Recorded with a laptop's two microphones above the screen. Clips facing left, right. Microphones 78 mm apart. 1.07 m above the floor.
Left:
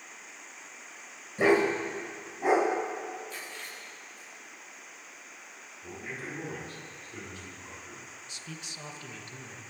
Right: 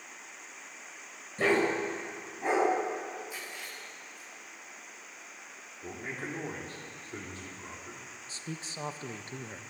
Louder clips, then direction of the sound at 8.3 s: Right 5 dB; 35° right (ahead or behind).